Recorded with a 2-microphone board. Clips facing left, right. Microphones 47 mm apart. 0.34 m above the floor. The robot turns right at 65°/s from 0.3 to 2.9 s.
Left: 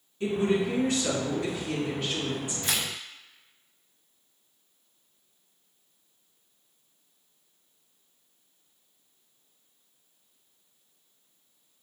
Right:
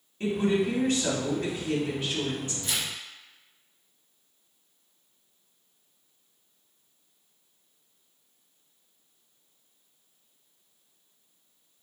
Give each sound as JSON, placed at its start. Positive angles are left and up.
{"t": 0.2, "sound": "a woman speaking", "azimuth_deg": -125, "distance_m": 1.9}
{"t": 2.6, "sound": "tearing paper", "side_deg": 70, "distance_m": 0.5}